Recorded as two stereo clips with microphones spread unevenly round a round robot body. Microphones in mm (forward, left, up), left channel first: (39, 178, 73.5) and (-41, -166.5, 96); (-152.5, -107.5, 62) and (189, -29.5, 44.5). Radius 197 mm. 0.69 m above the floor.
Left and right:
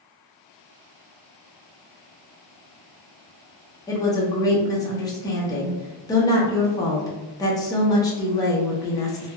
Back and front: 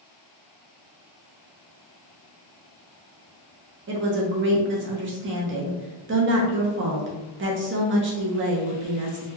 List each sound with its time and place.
3.9 s a woman speaking: 10° left, 0.8 m